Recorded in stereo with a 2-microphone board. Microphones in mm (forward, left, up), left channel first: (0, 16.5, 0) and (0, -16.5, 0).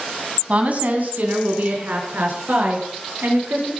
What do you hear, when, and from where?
0.5 s a woman speaking: 40° right (ahead or behind), 2 m; by 3.7 s 75° right (ahead or behind), 6 m